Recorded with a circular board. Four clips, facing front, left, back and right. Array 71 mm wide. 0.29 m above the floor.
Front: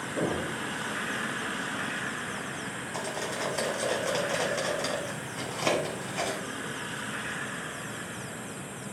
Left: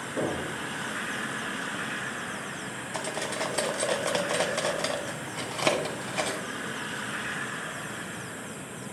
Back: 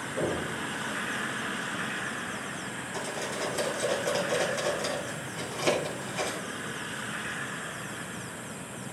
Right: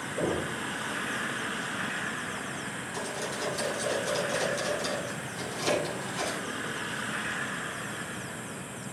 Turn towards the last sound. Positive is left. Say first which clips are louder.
# left 4 dB, even
turn(degrees=80)